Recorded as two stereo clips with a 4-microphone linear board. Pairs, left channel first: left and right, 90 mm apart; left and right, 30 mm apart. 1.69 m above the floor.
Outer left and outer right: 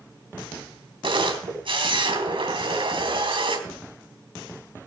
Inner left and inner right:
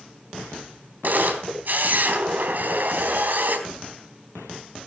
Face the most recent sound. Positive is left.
turn(degrees=-65)  # may be behind; listen again after turning